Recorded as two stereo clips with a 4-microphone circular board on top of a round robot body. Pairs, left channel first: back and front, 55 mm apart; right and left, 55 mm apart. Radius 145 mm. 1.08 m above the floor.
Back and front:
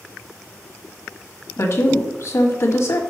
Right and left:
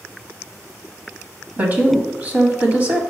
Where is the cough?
No cough in this recording.